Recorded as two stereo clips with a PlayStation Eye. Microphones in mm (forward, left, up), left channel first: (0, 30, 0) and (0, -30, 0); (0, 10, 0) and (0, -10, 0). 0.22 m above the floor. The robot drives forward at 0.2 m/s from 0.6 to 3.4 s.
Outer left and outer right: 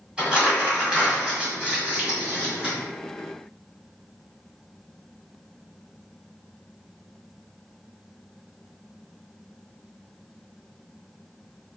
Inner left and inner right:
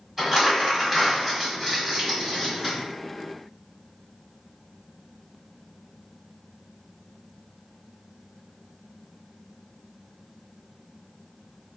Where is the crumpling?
15° right (ahead or behind), 1.6 m.